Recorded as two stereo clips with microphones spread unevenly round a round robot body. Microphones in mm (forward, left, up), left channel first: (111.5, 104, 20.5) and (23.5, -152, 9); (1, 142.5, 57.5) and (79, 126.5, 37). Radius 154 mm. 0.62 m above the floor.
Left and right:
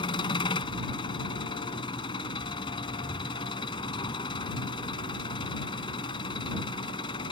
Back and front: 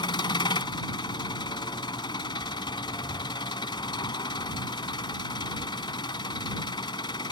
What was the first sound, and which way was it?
An engine running, 145° left.